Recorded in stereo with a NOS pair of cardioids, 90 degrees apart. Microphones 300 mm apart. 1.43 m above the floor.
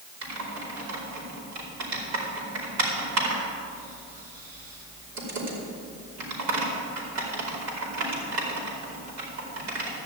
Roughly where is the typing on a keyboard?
Ahead right.